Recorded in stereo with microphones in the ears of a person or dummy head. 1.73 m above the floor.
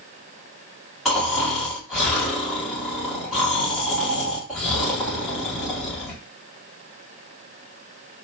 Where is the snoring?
Centre (ahead or behind), 1.6 m.